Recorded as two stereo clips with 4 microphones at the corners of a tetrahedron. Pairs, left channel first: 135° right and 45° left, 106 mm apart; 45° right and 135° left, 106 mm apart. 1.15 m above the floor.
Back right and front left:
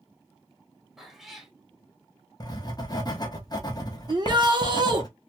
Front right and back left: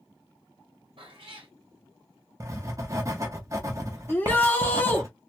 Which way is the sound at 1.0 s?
130° left.